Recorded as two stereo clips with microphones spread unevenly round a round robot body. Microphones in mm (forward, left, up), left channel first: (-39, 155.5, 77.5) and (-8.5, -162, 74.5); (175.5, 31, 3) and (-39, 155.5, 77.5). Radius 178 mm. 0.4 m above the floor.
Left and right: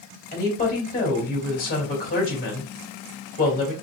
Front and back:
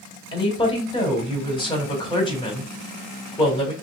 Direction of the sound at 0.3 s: 35° left.